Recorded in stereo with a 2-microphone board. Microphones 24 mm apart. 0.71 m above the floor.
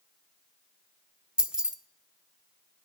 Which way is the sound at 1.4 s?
35° right (ahead or behind).